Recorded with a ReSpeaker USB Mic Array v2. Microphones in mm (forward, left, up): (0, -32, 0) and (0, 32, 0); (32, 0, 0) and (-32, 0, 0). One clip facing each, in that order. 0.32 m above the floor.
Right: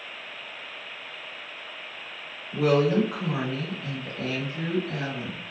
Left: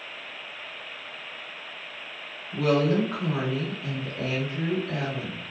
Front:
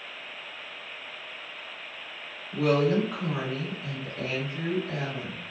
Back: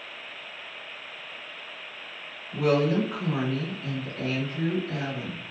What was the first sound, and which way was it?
A woman speaking, 110° right.